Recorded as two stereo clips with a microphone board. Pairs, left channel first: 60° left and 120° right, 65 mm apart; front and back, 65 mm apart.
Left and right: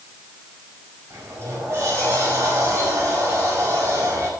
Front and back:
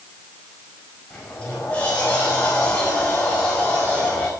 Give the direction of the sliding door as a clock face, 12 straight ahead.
2 o'clock.